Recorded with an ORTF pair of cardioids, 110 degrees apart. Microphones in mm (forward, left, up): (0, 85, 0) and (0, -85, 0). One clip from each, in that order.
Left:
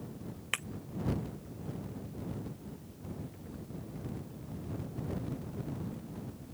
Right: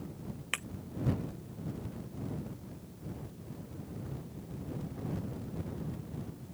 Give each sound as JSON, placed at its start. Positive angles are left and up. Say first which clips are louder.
{"t": 0.5, "sound": "breaking glass", "louder": "left 1 dB", "azimuth_deg": 5}